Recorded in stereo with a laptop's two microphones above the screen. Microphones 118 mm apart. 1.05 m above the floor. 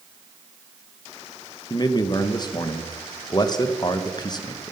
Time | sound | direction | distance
1.7 | a man speaking | 35° left (ahead or behind) | 0.8 m